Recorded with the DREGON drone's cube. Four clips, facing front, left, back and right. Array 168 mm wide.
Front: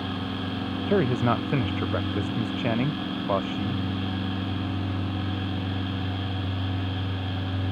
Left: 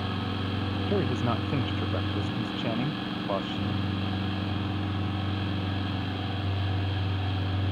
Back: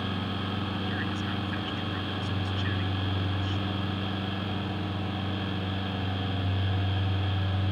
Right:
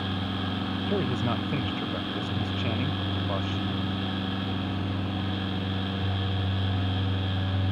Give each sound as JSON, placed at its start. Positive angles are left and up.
{"t": 0.9, "sound": "a man speaking", "azimuth_deg": 5}